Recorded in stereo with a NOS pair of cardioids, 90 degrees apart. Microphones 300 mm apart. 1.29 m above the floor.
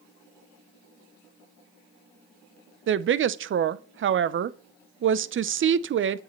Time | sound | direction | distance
2.9 | a woman speaking | 45° right | 0.6 m